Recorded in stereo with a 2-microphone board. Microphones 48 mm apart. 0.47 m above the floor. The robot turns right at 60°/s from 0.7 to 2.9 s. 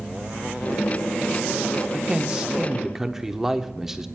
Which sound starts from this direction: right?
A man speaking, at 1.9 s.